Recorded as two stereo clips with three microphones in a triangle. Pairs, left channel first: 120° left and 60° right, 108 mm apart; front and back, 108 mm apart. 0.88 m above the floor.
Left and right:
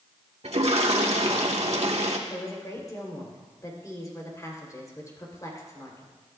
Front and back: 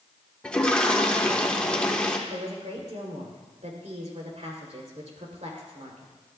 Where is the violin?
No violin in this recording.